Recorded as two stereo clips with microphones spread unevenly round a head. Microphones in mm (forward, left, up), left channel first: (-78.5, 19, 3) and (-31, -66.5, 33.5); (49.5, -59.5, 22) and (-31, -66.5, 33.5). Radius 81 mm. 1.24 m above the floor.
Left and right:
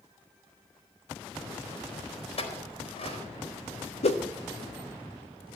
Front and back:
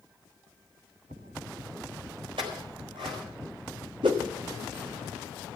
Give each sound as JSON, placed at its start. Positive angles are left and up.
{"t": 2.4, "sound": "a clink", "azimuth_deg": 135, "distance_m": 4.5}
{"t": 4.0, "sound": "a whoosh", "azimuth_deg": 130, "distance_m": 1.1}